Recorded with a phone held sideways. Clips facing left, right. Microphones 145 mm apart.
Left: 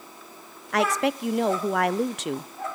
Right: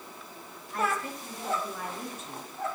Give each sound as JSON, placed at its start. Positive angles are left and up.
{"t": 0.7, "sound": "a woman speaking", "side_deg": 85, "distance_m": 0.5}